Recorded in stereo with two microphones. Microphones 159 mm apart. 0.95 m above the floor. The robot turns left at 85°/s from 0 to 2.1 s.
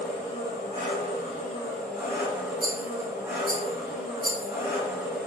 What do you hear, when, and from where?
0.0 s an engine running: 165° left, 1.5 m; by 5.3 s 15° right, 1.5 m
2.6 s a rattle: 65° right (ahead or behind), 0.6 m